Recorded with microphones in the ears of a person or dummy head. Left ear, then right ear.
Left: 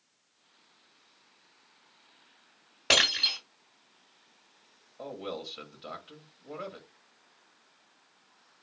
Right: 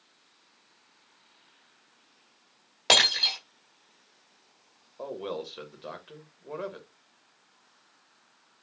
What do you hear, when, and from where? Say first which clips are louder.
2.9 s breaking glass: right 3 dB; 55° right (ahead or behind), 2.0 m
5.0 s a man speaking: right 3 dB; 20° right (ahead or behind), 1.0 m